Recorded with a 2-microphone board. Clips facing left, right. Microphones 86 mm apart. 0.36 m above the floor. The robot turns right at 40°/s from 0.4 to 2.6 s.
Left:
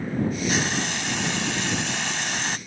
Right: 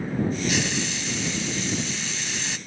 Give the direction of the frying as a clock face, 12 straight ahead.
11 o'clock.